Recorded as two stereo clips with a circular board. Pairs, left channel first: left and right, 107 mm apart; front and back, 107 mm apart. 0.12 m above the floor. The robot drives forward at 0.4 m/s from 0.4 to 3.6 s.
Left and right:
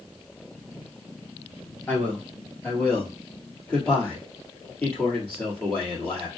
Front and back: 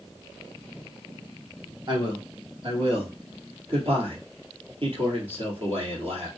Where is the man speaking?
160° left, 1.6 m; by 6.3 s 165° left, 2 m.